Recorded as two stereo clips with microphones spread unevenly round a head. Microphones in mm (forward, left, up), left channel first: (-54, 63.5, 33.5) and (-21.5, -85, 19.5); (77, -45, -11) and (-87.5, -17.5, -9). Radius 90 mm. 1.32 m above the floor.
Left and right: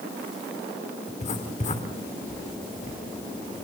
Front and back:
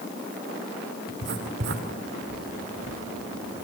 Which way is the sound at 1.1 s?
145° left.